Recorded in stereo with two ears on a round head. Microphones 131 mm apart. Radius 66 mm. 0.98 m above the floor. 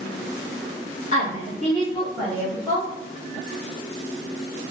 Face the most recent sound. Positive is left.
turn(degrees=25)  # may be behind; listen again after turning